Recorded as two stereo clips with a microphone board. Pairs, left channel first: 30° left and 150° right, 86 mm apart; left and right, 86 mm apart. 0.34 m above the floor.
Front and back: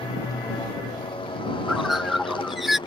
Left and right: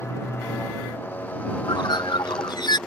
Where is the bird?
125° left.